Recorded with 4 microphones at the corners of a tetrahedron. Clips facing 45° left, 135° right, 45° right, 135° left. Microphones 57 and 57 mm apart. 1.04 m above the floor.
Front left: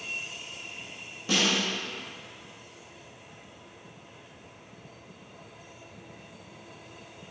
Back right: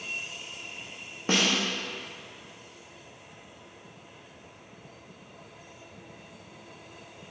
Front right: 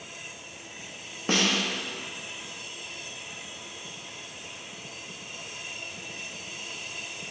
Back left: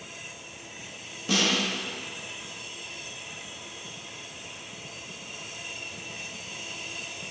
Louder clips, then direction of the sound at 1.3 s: Back right 1 dB, even; 90° right.